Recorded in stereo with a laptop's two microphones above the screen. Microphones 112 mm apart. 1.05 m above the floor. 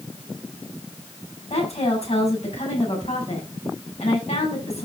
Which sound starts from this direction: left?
A woman speaking, at 1.5 s.